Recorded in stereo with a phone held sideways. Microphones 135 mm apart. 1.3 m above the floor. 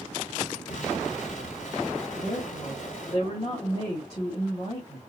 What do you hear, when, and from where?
0.7 s an explosion: 65° left (ahead or behind), 3 m
2.1 s a woman speaking: 45° left (ahead or behind), 1.9 m